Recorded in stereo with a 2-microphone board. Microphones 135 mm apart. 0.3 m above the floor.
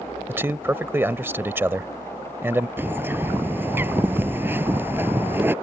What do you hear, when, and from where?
0.3 s a man speaking: 15° right (ahead or behind)
2.8 s a bird: 15° right (ahead or behind)